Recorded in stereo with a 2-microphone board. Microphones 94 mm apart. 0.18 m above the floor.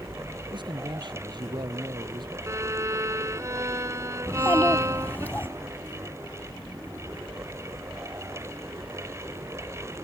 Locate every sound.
0.5 s a man speaking: 55° right (ahead or behind)
2.5 s a violin: 35° right (ahead or behind)
4.3 s a child speaking: 20° left (ahead or behind)